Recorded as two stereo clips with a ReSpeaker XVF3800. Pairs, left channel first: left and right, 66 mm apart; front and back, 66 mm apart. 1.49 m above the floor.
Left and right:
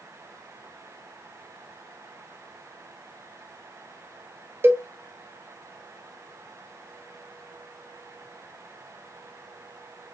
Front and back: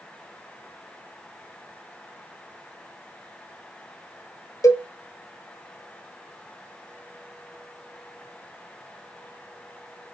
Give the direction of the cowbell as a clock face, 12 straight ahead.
1 o'clock.